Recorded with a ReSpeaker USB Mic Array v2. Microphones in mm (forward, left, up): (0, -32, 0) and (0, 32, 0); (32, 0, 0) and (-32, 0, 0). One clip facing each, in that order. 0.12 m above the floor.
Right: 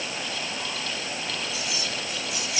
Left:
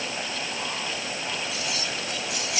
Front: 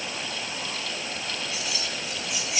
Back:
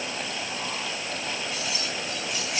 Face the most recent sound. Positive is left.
turn(degrees=90)